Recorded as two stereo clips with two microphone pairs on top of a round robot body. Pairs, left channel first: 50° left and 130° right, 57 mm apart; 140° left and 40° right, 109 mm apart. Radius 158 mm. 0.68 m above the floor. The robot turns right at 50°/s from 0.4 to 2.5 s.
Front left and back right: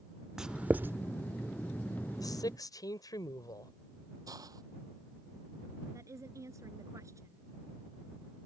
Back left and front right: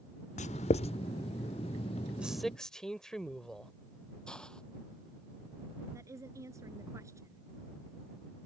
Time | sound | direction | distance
0.4 | writing | 145° left | ?
2.2 | a man speaking | 40° left | ?
4.3 | a hiss | 135° right | ?
5.9 | a woman speaking | 100° right | ?